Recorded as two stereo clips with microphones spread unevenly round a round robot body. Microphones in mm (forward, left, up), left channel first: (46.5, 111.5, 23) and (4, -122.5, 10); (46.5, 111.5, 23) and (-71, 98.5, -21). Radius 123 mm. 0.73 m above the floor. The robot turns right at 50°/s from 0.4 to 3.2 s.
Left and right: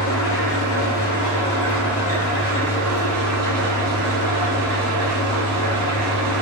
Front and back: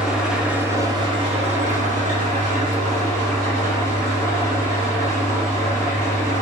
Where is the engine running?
95° left, 0.9 m; by 6.4 s 125° right, 0.9 m.